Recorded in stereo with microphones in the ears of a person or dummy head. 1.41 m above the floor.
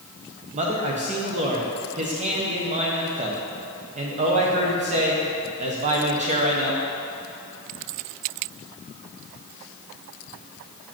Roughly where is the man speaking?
Right.